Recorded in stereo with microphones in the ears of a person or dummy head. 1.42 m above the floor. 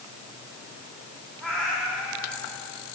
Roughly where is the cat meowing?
Centre.